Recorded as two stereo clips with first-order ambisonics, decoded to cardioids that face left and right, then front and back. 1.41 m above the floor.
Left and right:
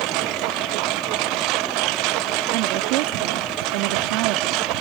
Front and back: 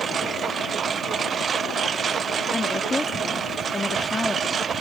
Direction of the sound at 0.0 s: 115° right.